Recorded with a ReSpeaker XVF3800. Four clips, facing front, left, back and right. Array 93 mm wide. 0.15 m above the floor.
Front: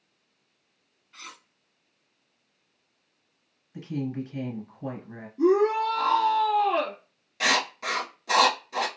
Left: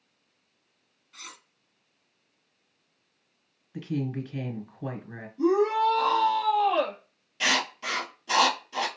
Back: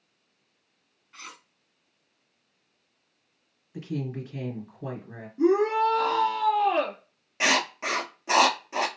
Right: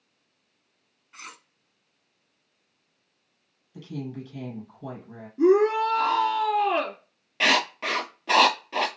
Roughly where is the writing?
Behind right.